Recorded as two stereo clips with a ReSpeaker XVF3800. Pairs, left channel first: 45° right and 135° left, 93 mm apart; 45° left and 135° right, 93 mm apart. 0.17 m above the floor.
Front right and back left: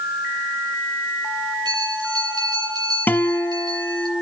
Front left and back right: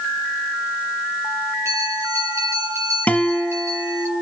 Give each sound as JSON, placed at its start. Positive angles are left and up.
{"t": 1.6, "sound": "a bell", "azimuth_deg": 170, "distance_m": 4.5}
{"t": 3.1, "sound": "a guitar", "azimuth_deg": -10, "distance_m": 1.2}